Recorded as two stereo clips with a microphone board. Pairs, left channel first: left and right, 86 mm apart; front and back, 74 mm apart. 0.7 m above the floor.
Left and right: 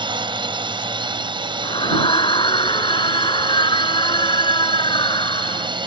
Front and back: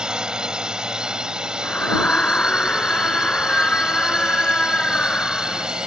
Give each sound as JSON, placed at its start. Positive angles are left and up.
{"t": 0.0, "sound": "a drone", "azimuth_deg": -100}
{"t": 1.6, "sound": "a scream", "azimuth_deg": 75}